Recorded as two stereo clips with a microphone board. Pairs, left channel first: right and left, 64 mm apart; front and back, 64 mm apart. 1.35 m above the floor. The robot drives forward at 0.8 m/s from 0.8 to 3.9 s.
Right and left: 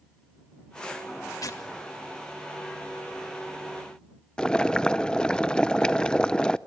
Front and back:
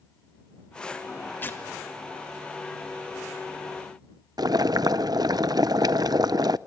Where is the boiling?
170° right, 0.6 m.